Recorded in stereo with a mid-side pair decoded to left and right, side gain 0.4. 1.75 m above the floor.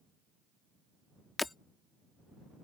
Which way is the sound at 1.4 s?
20° left.